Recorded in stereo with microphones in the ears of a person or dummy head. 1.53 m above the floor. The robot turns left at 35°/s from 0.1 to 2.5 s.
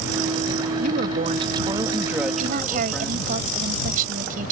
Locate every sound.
0.8 s a woman speaking: 125° right; by 3.3 s 175° left
2.4 s a woman speaking: 50° right (ahead or behind); by 4.5 s 55° right (ahead or behind)